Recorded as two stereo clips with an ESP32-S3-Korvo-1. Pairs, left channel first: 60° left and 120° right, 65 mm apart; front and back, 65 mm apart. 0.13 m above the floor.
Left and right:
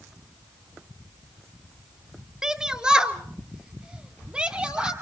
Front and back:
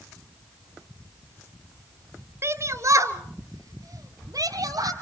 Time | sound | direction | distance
2.4 | a shout | 165° left | 1.9 m